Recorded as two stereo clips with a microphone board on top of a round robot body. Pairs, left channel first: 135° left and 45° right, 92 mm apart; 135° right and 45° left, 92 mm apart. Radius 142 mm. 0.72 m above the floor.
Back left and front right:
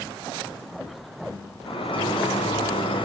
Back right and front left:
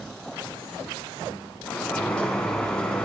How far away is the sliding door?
About 2.5 m.